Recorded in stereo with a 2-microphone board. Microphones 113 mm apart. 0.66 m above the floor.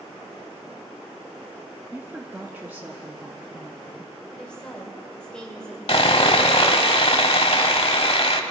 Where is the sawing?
60° left (ahead or behind), 0.7 m.